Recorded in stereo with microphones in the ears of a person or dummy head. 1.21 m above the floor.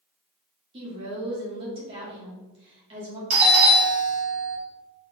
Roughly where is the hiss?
I don't hear a hiss.